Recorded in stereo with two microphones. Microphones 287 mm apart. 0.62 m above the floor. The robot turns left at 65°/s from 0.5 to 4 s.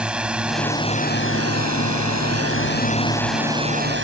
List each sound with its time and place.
0.0 s a drone: 175° right; by 4.0 s 45° right